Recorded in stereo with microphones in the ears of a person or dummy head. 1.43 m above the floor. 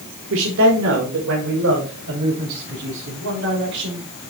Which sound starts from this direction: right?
A man speaking, at 0.3 s.